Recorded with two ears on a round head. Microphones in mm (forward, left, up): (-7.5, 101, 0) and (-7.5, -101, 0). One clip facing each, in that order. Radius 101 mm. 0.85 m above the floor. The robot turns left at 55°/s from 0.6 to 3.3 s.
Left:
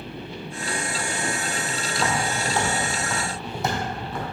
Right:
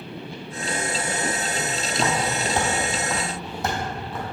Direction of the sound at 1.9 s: 25° right (ahead or behind).